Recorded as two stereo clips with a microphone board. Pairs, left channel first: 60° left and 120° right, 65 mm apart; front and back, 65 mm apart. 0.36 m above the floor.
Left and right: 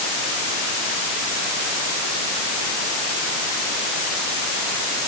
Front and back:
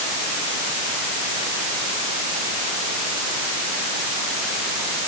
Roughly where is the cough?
I don't hear a cough.